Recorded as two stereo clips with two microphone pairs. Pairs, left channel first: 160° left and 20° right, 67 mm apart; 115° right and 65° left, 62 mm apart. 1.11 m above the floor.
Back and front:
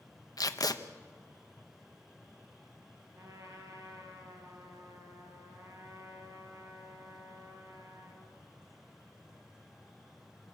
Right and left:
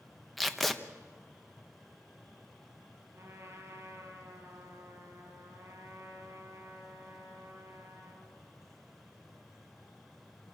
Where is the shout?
I don't hear a shout.